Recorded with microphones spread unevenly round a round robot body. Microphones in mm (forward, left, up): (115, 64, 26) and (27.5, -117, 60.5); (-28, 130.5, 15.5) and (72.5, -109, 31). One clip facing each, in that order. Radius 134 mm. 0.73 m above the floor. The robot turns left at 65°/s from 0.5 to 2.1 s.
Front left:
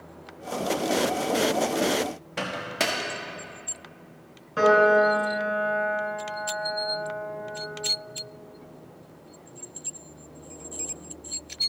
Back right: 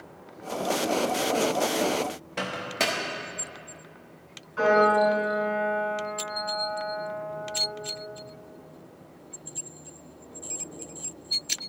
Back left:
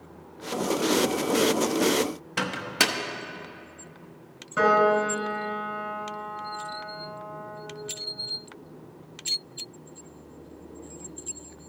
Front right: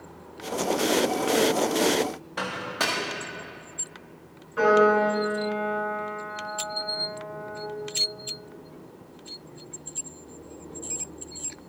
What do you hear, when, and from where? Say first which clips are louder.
2.4 s a microwave: front left 1 dB, back left 3 dB; 145° left, 0.7 m
4.6 s a piano: front left 2 dB, front right 3 dB; 90° left, 3 m